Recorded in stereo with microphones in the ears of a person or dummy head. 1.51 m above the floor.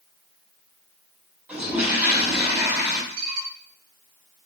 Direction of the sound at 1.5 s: 5° right (ahead or behind).